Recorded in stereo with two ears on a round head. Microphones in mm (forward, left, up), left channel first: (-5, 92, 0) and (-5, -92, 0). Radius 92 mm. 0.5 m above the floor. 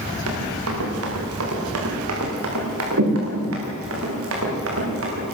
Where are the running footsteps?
85° right, 6.5 m; by 5.3 s 75° right (ahead or behind), 9.5 m.